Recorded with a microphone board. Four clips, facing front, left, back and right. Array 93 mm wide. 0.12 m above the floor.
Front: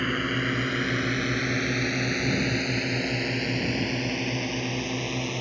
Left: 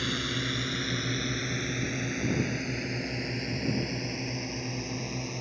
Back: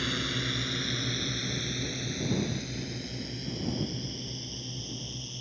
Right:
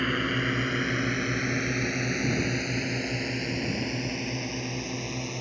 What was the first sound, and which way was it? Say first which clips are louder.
A drone: right 5 dB, front 6 dB; 45° right.